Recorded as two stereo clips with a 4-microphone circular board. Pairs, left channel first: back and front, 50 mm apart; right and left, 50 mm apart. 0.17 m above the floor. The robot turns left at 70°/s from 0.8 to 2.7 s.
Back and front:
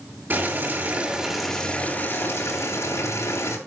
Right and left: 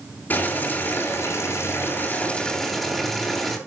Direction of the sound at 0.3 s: 45° right.